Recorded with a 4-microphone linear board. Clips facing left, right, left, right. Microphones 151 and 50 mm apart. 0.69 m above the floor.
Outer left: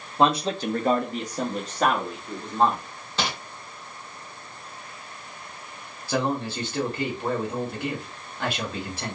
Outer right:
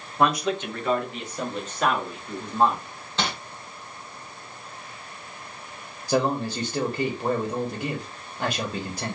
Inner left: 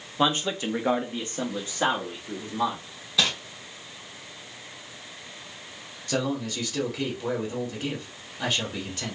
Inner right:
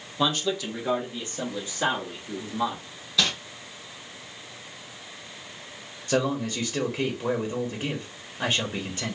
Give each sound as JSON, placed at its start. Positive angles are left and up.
{"t": 0.2, "sound": "a man speaking", "side_deg": 20, "distance_m": 0.7}
{"t": 3.2, "sound": "crumpling", "side_deg": 10, "distance_m": 1.9}
{"t": 6.1, "sound": "a man speaking", "side_deg": -15, "distance_m": 0.9}